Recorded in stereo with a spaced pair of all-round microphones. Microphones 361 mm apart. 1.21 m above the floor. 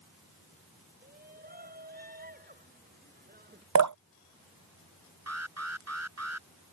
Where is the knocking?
I don't hear knocking.